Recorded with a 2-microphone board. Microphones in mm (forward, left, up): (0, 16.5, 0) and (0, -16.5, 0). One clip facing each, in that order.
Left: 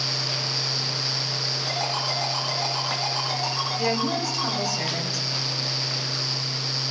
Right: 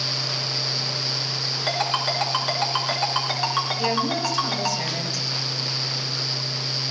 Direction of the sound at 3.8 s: 10° left (ahead or behind).